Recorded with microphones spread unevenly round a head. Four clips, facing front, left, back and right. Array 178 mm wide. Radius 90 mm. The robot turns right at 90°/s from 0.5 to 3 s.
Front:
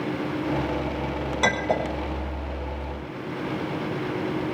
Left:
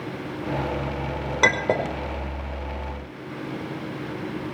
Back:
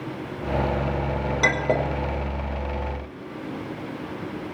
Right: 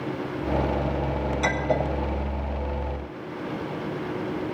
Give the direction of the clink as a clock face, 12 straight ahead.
9 o'clock.